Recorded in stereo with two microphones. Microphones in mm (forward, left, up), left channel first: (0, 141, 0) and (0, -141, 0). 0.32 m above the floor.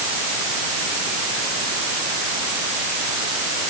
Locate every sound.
Only background noise.